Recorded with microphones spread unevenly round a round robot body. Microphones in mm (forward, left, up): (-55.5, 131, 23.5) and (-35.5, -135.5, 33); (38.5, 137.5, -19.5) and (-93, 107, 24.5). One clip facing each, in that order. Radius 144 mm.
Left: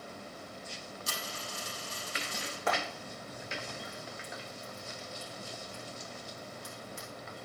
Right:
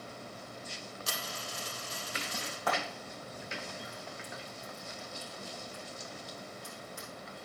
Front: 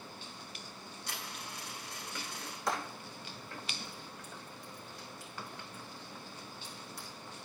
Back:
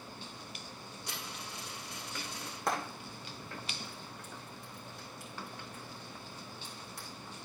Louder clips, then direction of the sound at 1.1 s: Even, even; 115° right.